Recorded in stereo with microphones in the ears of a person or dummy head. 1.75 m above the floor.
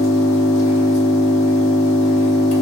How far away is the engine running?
About 1.2 m.